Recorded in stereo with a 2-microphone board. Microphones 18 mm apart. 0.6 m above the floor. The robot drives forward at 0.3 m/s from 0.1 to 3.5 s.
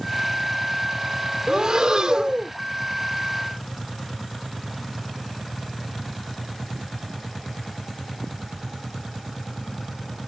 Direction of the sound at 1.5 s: 45° right (ahead or behind).